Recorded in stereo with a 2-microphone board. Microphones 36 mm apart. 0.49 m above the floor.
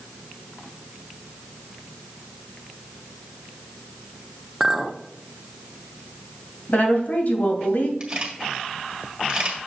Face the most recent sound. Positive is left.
turn(degrees=-30)  # may be behind; listen again after turning